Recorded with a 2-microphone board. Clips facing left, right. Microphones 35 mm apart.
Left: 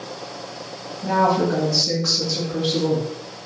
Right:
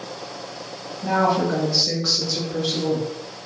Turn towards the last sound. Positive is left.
turn(degrees=40)  # may be behind; listen again after turning